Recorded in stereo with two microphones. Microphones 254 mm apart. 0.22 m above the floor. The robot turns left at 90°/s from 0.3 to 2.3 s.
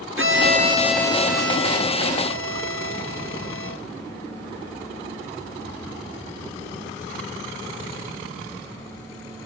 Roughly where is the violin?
Behind right.